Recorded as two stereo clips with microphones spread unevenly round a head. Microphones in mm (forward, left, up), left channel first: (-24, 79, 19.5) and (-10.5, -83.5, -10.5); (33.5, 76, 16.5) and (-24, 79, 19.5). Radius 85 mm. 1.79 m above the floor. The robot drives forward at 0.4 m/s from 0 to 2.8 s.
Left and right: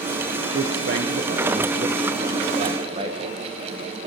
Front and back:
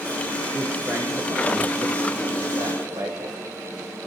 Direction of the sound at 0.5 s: 105° right.